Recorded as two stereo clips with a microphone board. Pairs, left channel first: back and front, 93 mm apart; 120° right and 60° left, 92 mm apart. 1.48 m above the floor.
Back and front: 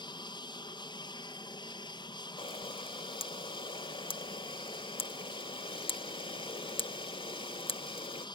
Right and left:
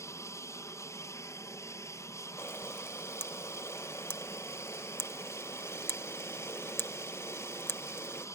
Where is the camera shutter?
175° left.